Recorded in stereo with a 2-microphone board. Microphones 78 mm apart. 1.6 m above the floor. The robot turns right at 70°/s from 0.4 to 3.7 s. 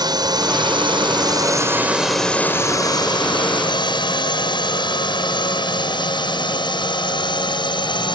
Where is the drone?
60° right (ahead or behind); by 8.2 s 75° left (ahead or behind).